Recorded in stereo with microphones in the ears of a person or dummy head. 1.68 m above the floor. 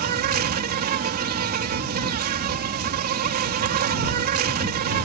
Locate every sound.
0.0 s an insect: 45° right (ahead or behind)